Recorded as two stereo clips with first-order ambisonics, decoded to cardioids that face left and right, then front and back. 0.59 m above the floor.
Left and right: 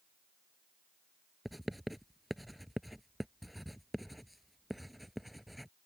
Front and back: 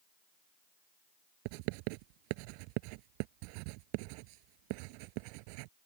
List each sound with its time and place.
1.4 s writing: straight behind